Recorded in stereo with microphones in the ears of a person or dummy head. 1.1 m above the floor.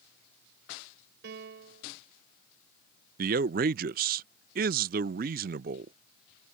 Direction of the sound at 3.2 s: 45° right (ahead or behind).